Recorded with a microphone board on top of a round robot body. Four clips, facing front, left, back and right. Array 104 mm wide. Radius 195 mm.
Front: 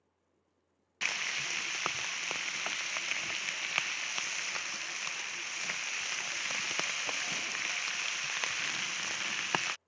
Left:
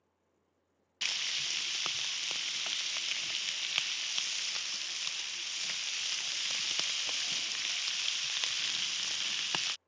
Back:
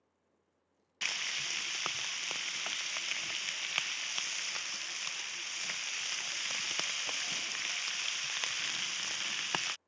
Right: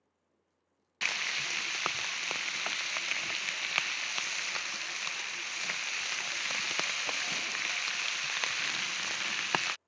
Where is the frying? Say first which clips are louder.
Right 7 dB, front 4 dB; 65° right.